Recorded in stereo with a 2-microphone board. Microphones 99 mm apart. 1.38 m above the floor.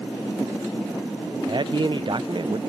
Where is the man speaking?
50° right (ahead or behind), 0.7 m.